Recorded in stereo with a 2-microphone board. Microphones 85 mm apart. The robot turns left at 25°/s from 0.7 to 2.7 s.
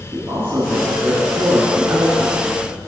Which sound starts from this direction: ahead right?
A man speaking, at 0.1 s.